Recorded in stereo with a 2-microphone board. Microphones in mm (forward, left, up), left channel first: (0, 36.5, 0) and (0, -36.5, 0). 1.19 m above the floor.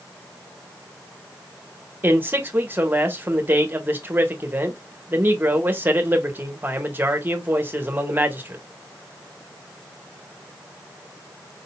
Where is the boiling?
No boiling in this recording.